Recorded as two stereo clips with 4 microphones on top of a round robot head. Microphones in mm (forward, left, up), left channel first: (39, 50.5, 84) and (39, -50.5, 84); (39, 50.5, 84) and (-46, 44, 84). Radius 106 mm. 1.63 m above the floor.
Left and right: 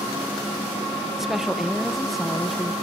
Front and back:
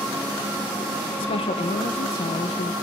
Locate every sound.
1.2 s a woman speaking: 5° right, 1.6 m